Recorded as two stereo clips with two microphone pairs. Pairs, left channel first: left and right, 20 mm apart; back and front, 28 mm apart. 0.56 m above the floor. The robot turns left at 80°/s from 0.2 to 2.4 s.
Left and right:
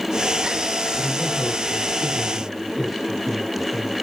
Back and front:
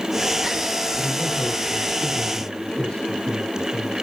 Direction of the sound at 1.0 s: 45° right.